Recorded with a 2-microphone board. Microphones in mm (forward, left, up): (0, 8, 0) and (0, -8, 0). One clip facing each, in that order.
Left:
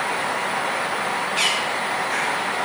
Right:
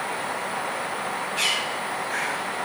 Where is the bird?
40° left (ahead or behind), 1.6 m.